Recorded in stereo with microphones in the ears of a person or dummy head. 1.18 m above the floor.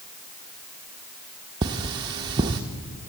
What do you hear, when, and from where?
1.6 s cutlery clinking: 20° right (ahead or behind), 0.5 m